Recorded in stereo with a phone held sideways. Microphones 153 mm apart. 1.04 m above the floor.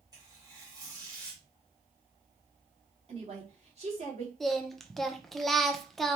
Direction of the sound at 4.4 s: Centre (ahead or behind).